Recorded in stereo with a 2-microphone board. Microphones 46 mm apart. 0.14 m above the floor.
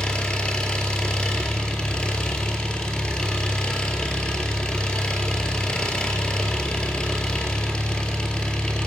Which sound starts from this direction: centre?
An engine running, at 0.0 s.